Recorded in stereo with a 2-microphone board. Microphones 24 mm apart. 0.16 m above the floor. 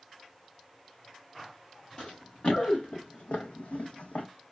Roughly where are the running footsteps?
Left.